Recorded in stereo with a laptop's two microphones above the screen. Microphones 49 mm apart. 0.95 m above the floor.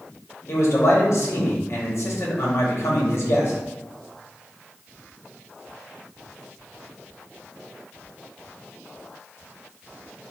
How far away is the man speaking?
About 1.7 m.